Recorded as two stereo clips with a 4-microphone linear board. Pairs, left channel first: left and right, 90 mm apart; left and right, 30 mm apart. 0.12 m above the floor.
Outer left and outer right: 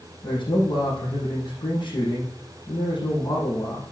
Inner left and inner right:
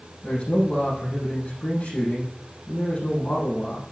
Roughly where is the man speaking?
Left.